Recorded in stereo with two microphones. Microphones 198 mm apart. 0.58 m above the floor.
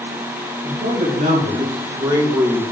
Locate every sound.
0.6 s a man speaking: 45° right (ahead or behind), 2.5 m; by 2.6 s 10° left (ahead or behind), 0.9 m